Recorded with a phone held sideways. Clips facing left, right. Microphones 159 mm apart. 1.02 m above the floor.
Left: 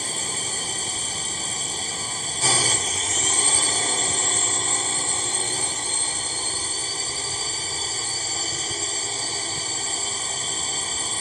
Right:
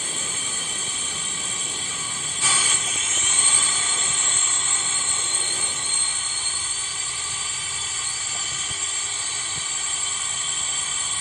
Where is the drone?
40° left (ahead or behind).